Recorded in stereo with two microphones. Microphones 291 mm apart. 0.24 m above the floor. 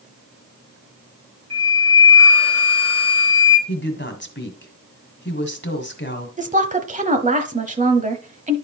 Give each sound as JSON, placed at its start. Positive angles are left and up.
{"t": 1.5, "sound": "a flute", "side_deg": -55, "distance_m": 3.5}
{"t": 3.7, "sound": "a woman speaking", "side_deg": 40, "distance_m": 1.6}
{"t": 6.4, "sound": "a woman speaking", "side_deg": -25, "distance_m": 1.0}